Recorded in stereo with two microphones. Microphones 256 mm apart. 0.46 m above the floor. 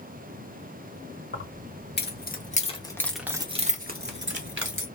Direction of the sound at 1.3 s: 50° left (ahead or behind).